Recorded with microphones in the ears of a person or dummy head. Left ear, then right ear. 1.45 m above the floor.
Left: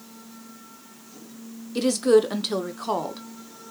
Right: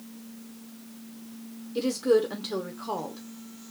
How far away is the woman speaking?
About 0.5 m.